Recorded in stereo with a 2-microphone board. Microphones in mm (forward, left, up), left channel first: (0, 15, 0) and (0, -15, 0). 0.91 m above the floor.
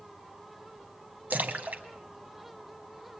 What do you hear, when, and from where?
1.3 s a splash: 60° right (ahead or behind), 1.6 m